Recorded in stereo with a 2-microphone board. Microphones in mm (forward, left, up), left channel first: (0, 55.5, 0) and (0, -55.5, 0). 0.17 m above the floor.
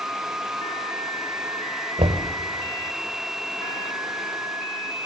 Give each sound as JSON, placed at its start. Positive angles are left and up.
{"t": 2.0, "sound": "knocking", "side_deg": -65, "distance_m": 2.5}